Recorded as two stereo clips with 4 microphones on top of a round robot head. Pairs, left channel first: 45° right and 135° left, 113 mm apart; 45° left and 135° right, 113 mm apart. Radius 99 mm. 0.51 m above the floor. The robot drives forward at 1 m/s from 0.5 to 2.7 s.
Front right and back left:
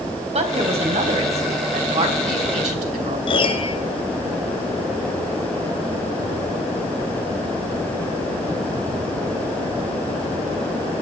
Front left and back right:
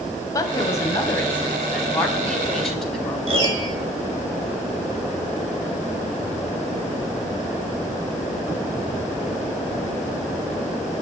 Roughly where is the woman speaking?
Left.